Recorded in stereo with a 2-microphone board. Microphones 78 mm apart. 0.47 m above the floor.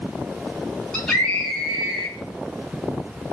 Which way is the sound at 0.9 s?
5° left (ahead or behind).